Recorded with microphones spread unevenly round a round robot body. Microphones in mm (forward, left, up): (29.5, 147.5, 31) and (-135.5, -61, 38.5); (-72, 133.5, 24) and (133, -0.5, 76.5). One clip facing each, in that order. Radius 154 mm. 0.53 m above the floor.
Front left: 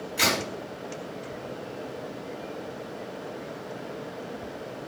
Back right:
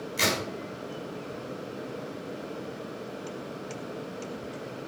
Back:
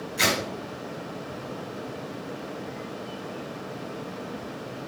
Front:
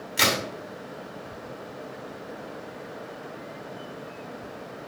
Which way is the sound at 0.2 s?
50° right.